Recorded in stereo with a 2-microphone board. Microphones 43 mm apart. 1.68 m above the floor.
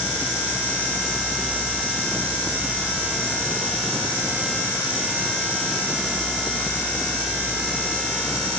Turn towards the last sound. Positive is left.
No sound to turn to.